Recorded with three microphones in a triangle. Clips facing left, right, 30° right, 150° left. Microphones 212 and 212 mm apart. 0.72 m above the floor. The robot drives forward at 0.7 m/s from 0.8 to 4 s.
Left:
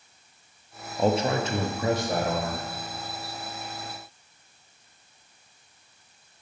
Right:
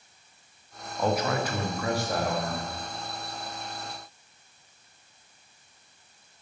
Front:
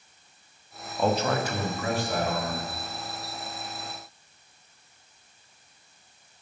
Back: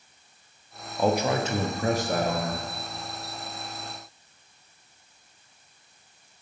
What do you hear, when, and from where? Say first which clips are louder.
1.0 s a man speaking: left 3 dB, back 1 dB; 70° left, 0.8 m; by 2.6 s 160° left, 1.3 m